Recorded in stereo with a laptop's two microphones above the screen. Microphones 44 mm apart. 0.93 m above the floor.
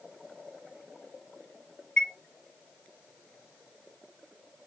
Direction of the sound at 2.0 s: 20° left (ahead or behind).